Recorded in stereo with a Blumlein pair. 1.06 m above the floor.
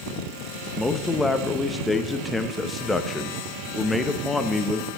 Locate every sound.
0.8 s a man speaking: 10° left, 0.8 m